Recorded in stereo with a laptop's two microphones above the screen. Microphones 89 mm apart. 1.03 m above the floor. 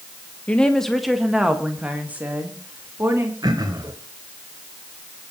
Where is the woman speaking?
15° left (ahead or behind), 1.3 m; by 3.3 s 30° right (ahead or behind), 2.5 m.